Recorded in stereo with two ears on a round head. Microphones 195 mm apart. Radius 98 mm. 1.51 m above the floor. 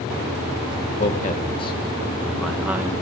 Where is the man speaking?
40° left (ahead or behind), 1.3 m; by 2.9 s 10° right (ahead or behind), 1.4 m.